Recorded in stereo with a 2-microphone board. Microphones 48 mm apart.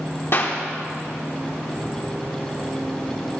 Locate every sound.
0.3 s a clap: 55° left (ahead or behind), 1.9 m